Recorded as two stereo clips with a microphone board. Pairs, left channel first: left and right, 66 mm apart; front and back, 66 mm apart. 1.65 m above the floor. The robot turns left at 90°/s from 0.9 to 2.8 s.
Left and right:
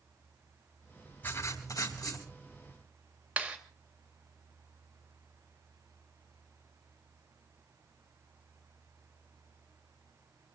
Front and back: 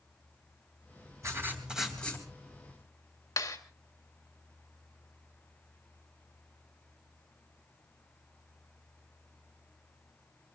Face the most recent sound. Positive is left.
turn(degrees=-20)